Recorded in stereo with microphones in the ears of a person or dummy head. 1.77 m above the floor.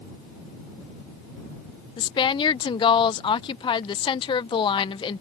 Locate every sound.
2.0 s a woman speaking: 25° left (ahead or behind)